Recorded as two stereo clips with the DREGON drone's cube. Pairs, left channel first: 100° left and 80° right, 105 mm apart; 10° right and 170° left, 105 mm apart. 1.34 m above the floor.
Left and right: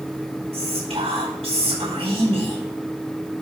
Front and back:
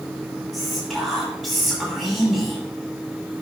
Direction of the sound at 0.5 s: 100° right.